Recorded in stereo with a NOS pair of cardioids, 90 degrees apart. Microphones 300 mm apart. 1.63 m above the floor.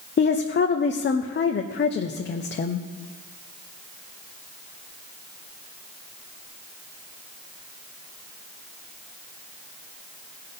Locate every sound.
0.2 s a woman speaking: 35° left, 0.8 m